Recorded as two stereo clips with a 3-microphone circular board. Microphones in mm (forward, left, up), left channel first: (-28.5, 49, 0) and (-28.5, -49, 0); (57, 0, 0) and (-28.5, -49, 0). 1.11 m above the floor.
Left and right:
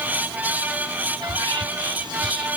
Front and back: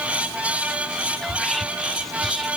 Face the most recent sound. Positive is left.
turn(degrees=-60)